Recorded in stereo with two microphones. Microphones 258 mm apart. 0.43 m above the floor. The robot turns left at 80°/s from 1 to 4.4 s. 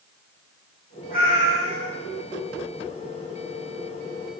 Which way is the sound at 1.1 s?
155° left.